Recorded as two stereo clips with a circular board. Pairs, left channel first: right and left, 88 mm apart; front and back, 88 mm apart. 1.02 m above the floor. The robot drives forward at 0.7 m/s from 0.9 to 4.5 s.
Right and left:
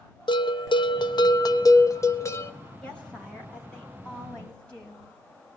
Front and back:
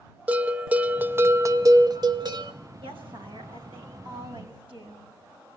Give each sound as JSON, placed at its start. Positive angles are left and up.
{"t": 0.3, "sound": "a bell", "azimuth_deg": -105, "distance_m": 1.0}
{"t": 2.8, "sound": "a woman speaking", "azimuth_deg": -165, "distance_m": 7.0}